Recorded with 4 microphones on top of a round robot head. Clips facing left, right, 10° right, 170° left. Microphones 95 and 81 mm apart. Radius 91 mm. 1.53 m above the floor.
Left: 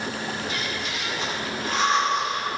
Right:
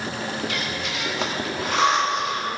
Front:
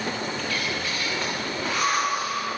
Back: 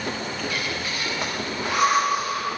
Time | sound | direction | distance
0.4 | breathing | 110° right | 1.8 m